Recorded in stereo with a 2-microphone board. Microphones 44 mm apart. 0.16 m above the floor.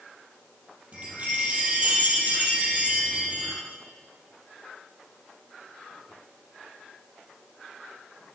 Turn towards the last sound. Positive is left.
turn(degrees=-30)  # may be behind; listen again after turning